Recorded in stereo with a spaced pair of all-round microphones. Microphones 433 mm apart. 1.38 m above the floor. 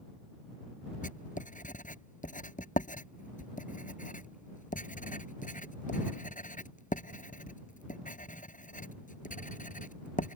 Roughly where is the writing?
Centre.